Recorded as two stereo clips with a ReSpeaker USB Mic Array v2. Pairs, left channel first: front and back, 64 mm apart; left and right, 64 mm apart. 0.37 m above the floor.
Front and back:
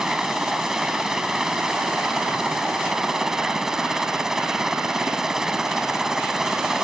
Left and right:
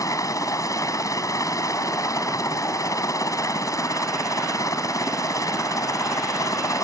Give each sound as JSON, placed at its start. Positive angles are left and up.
{"t": 0.0, "sound": "a helicopter", "azimuth_deg": 100}